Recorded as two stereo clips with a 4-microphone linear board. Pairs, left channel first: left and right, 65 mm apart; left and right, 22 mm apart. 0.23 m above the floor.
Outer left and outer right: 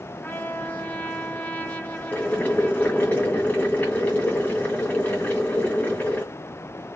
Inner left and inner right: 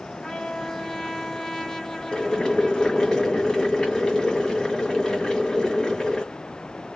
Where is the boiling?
20° left (ahead or behind), 2 m.